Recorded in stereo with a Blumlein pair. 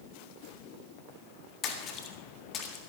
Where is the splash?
30° left, 1.7 m.